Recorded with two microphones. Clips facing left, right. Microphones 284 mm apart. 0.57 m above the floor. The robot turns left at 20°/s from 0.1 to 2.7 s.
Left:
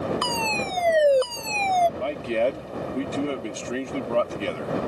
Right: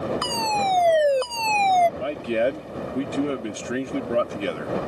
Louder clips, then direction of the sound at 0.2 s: Right 1 dB; 45° left.